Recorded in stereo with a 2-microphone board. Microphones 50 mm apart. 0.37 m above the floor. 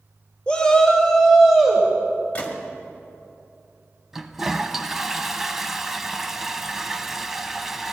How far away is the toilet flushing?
About 0.6 m.